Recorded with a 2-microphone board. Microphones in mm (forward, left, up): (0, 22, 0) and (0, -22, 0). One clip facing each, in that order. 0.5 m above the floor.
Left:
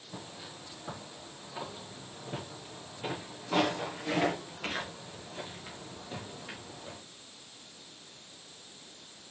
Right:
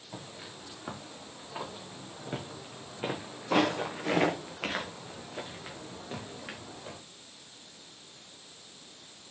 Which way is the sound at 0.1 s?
40° right (ahead or behind).